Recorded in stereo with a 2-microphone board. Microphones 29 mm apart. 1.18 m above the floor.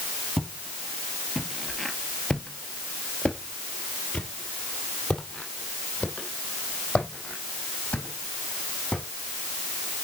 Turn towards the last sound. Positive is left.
turn(degrees=55)  # may be behind; listen again after turning